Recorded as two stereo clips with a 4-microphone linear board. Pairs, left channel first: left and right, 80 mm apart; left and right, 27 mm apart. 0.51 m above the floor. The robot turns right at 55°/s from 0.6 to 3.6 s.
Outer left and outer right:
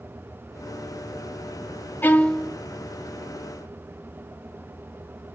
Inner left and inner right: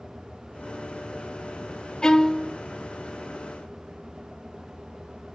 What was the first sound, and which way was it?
A violin, 25° left (ahead or behind).